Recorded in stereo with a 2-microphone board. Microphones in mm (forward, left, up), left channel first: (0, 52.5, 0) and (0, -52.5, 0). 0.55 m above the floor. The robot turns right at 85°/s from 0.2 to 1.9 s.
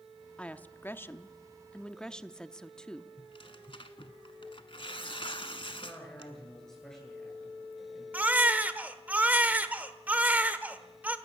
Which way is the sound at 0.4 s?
10° left (ahead or behind).